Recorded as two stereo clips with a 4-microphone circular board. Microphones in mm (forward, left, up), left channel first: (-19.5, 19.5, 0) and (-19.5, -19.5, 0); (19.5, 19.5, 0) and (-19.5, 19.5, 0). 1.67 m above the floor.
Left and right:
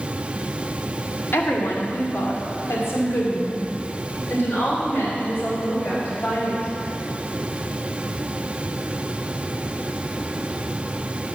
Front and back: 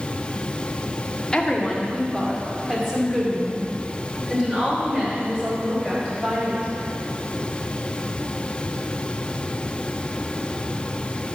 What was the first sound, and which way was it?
A woman speaking, 75° left.